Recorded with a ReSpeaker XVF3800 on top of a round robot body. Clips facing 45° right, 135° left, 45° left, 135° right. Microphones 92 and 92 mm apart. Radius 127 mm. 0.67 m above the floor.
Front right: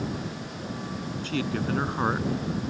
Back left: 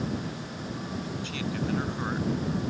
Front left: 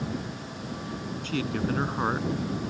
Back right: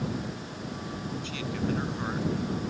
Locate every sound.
1.2 s a man speaking: straight ahead